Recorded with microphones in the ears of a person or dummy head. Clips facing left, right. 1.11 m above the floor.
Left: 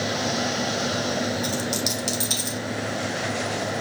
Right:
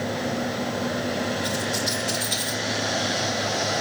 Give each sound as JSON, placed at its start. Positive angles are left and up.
{"t": 1.4, "sound": "a dropped coin", "side_deg": 75, "distance_m": 4.0}